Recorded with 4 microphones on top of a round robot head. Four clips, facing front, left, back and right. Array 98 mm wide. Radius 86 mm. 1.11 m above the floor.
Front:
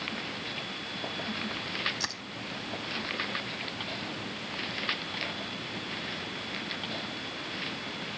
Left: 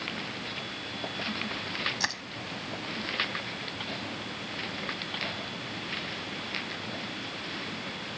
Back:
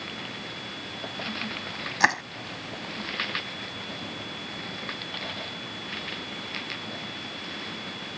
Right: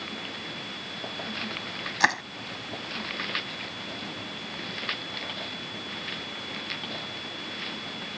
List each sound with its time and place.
2.0 s crushing: 145° right